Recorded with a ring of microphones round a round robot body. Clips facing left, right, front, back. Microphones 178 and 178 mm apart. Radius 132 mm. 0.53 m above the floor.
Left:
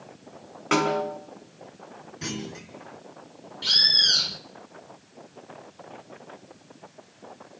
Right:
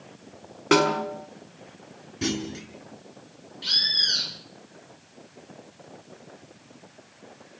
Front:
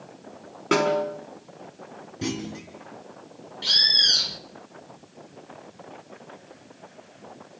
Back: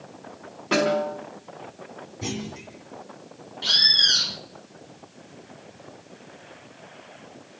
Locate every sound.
0.7 s a snare drum: 45° right, 5 m
2.2 s a clunk: 40° right, 4.5 m
3.6 s a bird: 70° left, 1.5 m